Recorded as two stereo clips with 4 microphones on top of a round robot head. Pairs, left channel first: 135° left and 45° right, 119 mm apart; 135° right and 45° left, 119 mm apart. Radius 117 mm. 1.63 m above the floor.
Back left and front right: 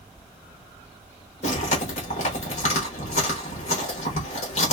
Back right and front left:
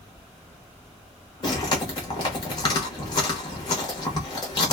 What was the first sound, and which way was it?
Chewing, 165° left.